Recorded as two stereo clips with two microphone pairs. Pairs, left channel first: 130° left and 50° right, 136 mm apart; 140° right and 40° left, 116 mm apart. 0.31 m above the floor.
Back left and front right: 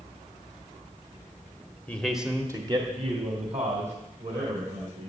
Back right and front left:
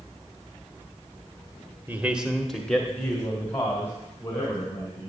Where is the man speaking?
85° left, 1.4 m; by 5.1 s 75° right, 4.5 m.